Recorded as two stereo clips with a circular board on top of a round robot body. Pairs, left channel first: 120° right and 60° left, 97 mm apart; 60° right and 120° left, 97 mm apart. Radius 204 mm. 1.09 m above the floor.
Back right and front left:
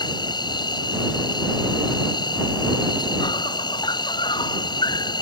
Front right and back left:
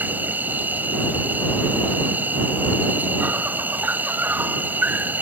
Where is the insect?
165° right.